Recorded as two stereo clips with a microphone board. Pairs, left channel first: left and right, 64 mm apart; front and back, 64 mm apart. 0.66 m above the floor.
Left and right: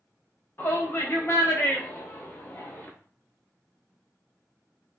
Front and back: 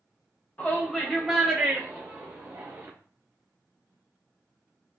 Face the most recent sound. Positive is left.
turn(degrees=140)